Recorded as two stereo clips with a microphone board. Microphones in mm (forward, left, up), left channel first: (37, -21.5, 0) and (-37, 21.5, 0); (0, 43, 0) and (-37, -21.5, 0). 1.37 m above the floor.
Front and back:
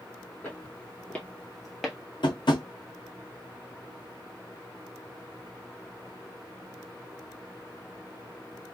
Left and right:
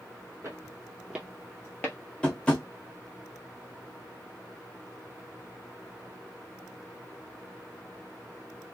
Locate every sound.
0.4 s footsteps: 95° right, 1.8 m; by 2.0 s 55° left, 1.4 m
2.2 s tapping: 15° right, 1.1 m